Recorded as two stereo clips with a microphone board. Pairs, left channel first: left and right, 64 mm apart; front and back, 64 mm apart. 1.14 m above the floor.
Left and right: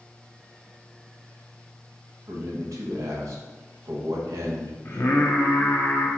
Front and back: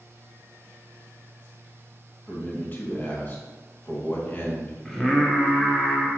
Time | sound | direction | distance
2.3 | a man speaking | 60° right | 1.2 m
4.8 | singing | 85° left | 0.8 m